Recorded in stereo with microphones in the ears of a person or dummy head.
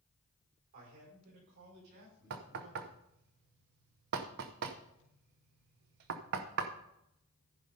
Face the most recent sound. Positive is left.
turn(degrees=-55)  # may be behind; listen again after turning